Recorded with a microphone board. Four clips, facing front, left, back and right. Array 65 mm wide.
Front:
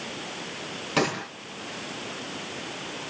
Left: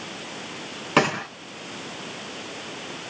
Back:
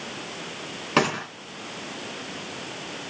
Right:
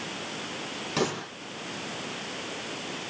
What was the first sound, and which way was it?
A gunshot, 120° left.